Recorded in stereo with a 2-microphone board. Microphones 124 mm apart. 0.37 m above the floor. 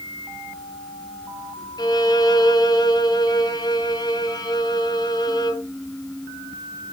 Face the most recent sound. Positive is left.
turn(degrees=35)  # may be behind; listen again after turning